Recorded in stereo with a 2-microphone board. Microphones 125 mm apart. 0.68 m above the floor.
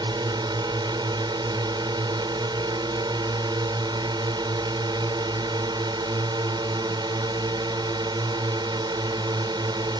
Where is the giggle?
I don't hear a giggle.